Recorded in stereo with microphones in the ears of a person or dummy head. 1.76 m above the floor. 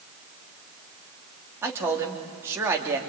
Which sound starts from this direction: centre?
A man speaking, at 1.6 s.